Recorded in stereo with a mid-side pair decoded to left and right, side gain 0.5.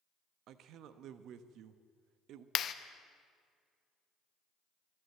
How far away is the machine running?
I don't hear a machine running.